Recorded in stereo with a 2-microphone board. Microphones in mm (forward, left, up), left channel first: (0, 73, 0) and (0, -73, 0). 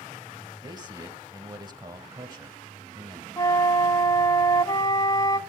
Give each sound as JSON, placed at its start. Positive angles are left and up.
{"t": 0.6, "sound": "a man speaking", "side_deg": -30, "distance_m": 1.4}
{"t": 3.4, "sound": "a flute", "side_deg": 25, "distance_m": 1.5}